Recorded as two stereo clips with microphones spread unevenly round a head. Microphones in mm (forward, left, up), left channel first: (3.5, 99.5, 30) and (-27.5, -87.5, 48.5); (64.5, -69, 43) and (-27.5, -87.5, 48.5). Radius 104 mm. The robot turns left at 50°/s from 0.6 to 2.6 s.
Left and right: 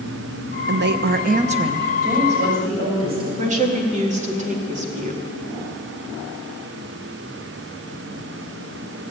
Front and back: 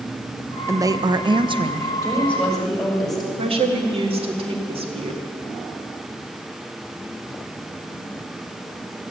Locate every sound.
0.7 s a woman speaking: 110° right, 0.9 m; by 1.9 s 175° right, 0.9 m
2.0 s a woman speaking: 50° right, 6 m; by 3.3 s 80° right, 6 m
3.4 s a woman speaking: 155° right, 2.0 m